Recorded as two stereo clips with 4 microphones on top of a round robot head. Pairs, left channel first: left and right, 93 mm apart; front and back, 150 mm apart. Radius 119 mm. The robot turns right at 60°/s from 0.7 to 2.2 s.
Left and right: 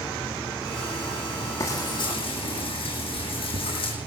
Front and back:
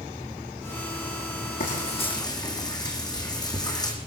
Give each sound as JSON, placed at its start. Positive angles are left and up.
{"t": 1.6, "sound": "frying", "azimuth_deg": 30, "distance_m": 8.0}